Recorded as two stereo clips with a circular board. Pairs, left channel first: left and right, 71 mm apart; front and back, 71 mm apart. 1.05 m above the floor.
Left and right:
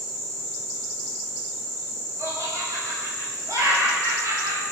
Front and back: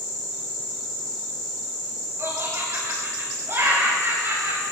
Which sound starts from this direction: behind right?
Laughter, at 2.2 s.